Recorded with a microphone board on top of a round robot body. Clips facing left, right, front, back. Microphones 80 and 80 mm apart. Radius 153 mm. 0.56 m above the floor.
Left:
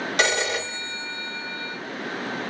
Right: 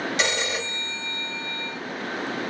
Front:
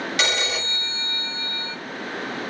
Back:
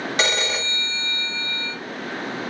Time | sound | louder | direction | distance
0.2 | a phone ringing | left 7 dB, back 3 dB | 125° left | 2 m